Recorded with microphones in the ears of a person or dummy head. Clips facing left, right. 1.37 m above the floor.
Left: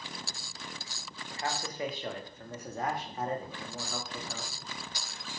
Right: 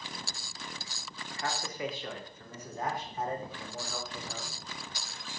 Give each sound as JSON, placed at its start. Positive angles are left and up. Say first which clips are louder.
{"t": 1.3, "sound": "a man speaking", "louder": "left 1 dB", "side_deg": 25, "distance_m": 3.0}